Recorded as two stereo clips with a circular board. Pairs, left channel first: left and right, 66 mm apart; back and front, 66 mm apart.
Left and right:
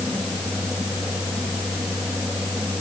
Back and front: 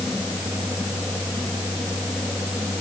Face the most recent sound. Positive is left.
No sound to turn to.